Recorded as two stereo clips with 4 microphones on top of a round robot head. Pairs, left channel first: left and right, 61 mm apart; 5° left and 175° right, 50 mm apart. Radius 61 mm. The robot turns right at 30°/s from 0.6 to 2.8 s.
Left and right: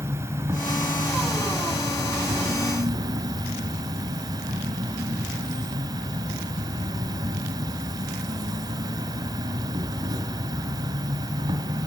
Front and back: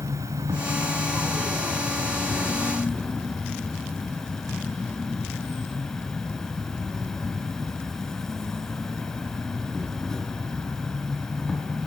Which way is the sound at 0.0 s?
140° right.